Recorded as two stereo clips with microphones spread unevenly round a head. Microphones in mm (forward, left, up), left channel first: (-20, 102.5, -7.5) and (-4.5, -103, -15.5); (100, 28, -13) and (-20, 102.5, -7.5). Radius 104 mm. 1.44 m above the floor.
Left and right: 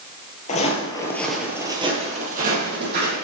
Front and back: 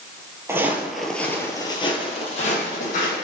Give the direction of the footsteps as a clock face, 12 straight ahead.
9 o'clock.